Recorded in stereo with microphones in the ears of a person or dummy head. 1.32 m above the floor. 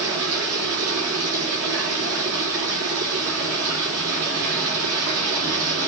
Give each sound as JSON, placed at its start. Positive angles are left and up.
{"t": 0.0, "sound": "running water", "side_deg": -85, "distance_m": 4.0}